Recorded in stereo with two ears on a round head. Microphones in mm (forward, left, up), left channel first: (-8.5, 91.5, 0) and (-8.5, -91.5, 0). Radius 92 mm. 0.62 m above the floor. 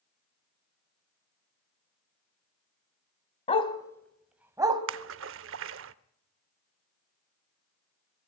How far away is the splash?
About 0.7 m.